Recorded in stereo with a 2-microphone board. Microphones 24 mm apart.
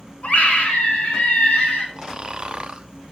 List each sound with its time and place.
0.2 s a scream: 55° left (ahead or behind), 4 m
2.0 s snoring: 35° right (ahead or behind), 0.7 m